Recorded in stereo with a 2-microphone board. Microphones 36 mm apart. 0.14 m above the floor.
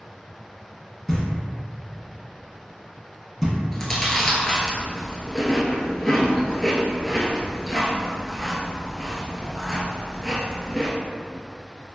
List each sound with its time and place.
1.1 s knocking: 15° left (ahead or behind), 0.7 m
3.7 s chewing: 10° left (ahead or behind), 0.5 m